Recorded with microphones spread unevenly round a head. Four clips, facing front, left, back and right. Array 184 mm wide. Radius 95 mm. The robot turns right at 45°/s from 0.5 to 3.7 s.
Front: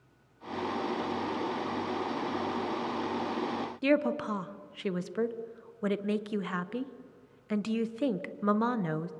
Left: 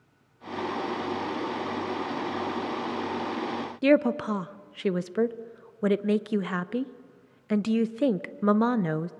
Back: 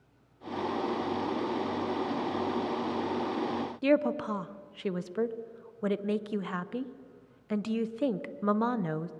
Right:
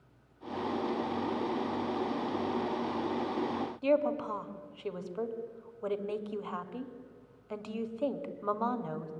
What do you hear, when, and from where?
3.8 s a woman speaking: 80° left, 0.8 m